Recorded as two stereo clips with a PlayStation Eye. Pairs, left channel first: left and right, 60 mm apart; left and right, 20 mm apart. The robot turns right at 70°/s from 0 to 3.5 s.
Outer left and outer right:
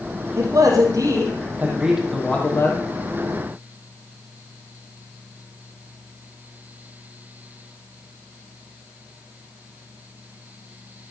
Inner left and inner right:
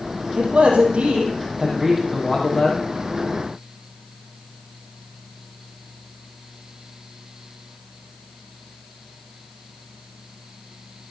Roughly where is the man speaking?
Behind right.